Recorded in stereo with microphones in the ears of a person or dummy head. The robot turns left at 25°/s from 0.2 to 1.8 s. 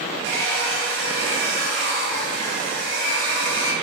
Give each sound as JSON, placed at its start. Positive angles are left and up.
{"t": 0.2, "sound": "a hair dryer", "azimuth_deg": -70, "distance_m": 1.6}